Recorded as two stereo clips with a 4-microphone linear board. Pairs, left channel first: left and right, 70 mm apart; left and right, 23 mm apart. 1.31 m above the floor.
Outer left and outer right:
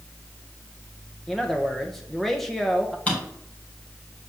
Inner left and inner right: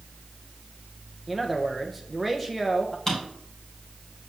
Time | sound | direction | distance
1.3 | a man speaking | 5° left (ahead or behind) | 0.9 m
3.1 | a drawer | 20° left (ahead or behind) | 3.5 m